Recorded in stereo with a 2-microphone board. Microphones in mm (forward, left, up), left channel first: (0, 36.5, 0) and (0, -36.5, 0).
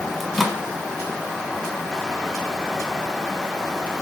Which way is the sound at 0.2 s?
Centre (ahead or behind).